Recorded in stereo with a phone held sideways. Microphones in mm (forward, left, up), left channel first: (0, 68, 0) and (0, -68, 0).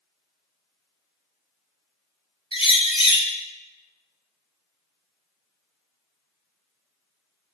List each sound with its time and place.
2.5 s a bird: 40° left (ahead or behind), 1.5 m